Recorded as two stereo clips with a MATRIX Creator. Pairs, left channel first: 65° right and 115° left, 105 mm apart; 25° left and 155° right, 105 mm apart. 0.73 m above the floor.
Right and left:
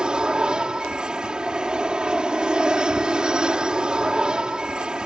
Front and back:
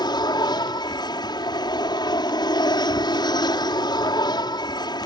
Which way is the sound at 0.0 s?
35° left.